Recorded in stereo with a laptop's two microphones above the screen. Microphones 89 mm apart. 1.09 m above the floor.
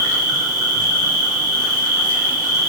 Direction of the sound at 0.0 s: 40° right (ahead or behind).